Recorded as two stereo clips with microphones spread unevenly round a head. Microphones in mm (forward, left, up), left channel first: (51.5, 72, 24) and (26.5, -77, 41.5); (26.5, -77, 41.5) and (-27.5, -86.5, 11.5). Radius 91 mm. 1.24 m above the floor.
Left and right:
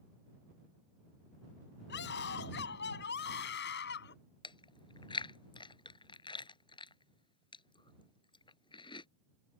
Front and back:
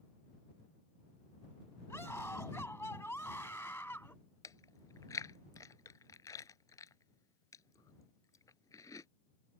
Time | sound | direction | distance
1.9 | a scream | 80° left | ?
4.4 | chewing | 20° left | ?